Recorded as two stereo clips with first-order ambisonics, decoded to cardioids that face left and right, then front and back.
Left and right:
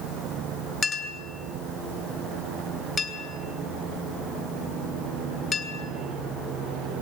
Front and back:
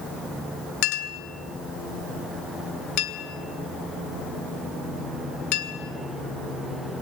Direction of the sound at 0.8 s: 20° left.